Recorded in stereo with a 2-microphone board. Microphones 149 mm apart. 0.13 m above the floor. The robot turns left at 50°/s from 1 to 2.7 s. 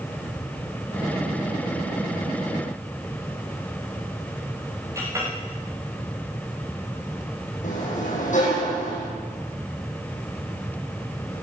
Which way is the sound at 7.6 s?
60° left (ahead or behind).